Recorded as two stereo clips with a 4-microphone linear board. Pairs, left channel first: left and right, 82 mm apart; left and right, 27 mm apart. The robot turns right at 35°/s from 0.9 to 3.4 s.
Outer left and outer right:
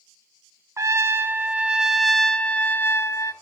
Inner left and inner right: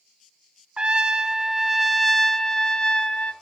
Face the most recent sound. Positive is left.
turn(degrees=50)